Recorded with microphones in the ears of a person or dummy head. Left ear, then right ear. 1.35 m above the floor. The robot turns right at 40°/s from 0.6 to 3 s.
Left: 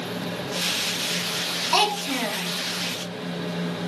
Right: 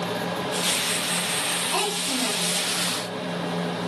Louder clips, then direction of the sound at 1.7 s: Left 3 dB; 60° left (ahead or behind).